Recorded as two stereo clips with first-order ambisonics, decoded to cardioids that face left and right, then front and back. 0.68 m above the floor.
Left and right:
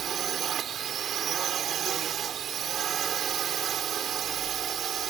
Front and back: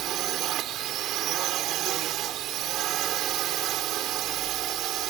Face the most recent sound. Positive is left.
turn(degrees=-145)